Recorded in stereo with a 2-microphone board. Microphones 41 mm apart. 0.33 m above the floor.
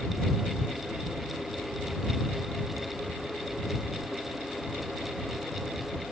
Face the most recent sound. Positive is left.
No sound to turn to.